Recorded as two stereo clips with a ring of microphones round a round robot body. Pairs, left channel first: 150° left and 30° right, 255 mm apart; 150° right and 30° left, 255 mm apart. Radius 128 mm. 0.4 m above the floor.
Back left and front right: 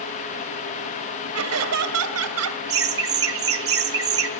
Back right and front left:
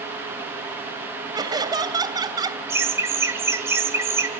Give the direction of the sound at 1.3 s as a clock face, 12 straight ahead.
1 o'clock.